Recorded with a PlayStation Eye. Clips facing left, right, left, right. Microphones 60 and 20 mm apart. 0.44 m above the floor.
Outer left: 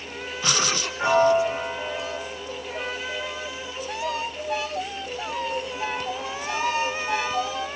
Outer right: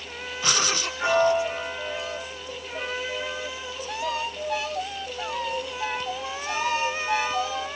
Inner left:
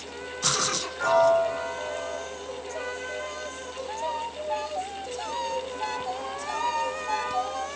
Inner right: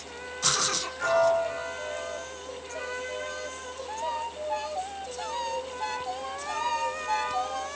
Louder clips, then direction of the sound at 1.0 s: Outer left 3 dB, inner left 3 dB; 30° left (ahead or behind).